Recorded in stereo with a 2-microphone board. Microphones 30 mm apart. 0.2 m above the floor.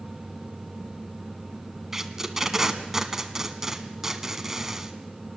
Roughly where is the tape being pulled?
Centre.